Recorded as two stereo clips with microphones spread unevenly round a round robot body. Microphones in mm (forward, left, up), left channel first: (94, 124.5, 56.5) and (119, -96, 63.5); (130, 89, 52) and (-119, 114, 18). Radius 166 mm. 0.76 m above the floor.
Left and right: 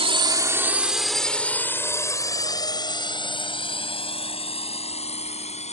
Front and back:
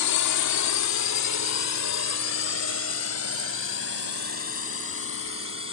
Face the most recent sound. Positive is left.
turn(degrees=35)